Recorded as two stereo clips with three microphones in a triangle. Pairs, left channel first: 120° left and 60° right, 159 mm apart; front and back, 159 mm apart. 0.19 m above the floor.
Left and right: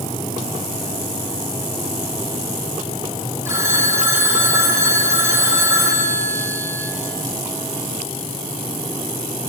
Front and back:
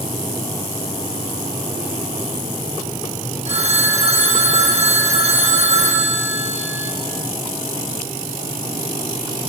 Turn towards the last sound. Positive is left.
turn(degrees=-135)